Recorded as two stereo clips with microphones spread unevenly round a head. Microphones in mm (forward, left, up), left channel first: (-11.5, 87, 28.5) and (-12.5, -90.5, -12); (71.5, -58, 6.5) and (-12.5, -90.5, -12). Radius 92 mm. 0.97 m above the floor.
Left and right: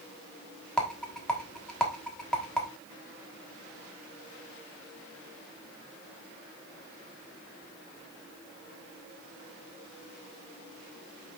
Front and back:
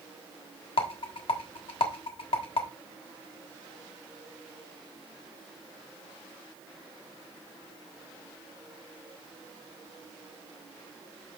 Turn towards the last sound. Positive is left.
turn(degrees=0)